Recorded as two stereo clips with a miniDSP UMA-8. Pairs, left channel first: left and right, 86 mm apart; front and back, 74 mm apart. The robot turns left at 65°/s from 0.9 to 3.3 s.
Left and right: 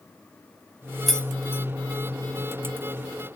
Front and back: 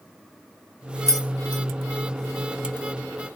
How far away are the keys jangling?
About 1.2 m.